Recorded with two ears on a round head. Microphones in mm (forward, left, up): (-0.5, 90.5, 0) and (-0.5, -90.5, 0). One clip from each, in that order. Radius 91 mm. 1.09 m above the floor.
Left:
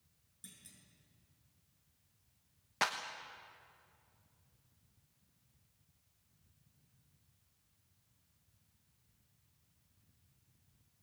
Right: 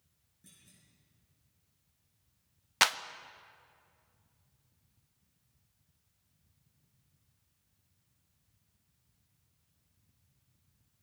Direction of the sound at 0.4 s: 85° left.